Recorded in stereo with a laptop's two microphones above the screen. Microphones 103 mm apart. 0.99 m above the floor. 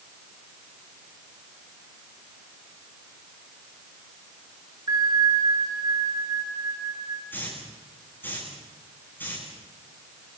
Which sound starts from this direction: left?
A hiss, at 7.3 s.